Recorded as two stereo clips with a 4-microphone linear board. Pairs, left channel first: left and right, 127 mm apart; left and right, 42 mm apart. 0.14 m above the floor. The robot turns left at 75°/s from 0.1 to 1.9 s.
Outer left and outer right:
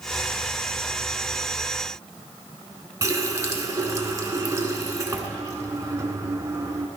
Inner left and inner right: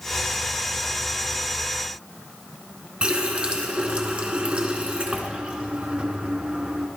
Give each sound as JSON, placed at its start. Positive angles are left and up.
{"t": 3.0, "sound": "a running tap", "side_deg": -30, "distance_m": 1.0}